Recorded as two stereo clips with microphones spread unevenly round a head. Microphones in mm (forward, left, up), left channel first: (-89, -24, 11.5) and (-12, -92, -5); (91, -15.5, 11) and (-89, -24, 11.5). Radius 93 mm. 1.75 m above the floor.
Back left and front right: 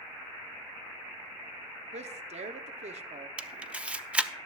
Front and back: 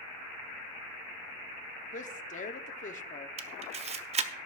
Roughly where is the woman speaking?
Ahead right.